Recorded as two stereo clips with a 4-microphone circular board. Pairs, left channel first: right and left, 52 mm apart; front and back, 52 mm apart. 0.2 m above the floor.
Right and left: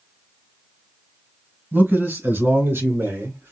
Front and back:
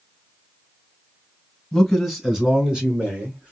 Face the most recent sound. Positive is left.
turn(degrees=115)